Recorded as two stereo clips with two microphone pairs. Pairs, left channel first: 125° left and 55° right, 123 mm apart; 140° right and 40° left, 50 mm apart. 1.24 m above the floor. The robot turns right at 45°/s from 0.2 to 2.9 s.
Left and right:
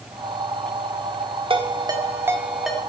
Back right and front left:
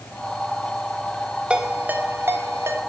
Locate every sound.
1.5 s a ringtone: 25° right, 1.3 m; by 2.8 s 35° left, 1.3 m